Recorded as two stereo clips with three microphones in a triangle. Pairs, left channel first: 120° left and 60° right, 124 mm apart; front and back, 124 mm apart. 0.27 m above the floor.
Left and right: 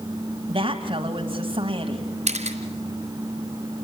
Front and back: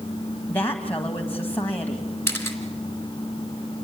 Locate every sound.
0.5 s a woman speaking: 70° right, 1.9 m
2.3 s a camera shutter: 70° right, 2.5 m